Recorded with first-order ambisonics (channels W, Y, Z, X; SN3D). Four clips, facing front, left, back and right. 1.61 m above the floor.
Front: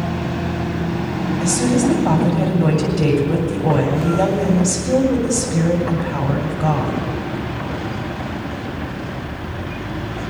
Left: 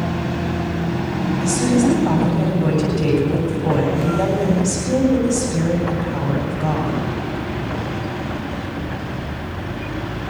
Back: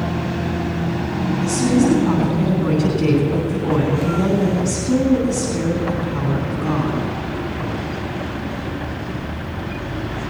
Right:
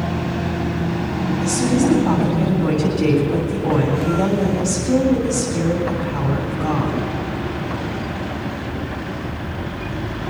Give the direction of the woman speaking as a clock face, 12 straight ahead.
12 o'clock.